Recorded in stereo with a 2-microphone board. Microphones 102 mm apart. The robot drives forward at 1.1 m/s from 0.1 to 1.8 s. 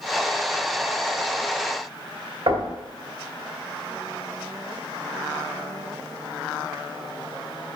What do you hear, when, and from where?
2.5 s knocking: 50° right (ahead or behind), 2.5 m